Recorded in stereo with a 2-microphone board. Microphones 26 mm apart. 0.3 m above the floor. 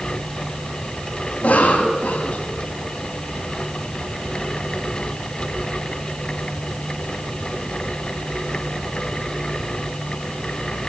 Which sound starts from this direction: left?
A cough, at 1.3 s.